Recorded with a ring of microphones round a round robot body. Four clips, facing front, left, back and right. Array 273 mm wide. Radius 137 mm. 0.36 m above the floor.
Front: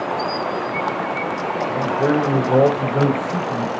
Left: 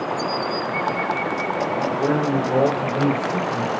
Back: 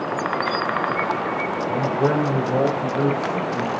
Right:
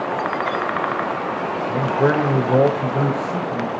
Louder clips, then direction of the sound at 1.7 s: Right 5 dB, front 2 dB; 110° right.